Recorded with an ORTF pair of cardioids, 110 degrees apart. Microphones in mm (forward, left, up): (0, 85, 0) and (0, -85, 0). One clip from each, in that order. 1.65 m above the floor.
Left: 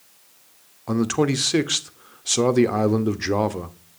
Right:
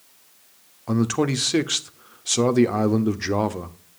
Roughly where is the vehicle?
I don't hear a vehicle.